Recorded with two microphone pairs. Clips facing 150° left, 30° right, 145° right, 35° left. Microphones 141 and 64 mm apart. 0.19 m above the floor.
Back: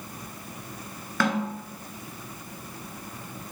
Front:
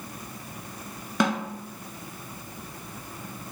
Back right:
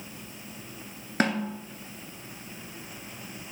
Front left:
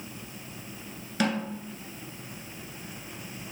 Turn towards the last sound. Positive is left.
turn(degrees=-100)